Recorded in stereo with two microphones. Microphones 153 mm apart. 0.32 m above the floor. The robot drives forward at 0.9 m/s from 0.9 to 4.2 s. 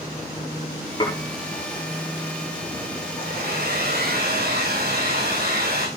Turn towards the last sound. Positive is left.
turn(degrees=-90)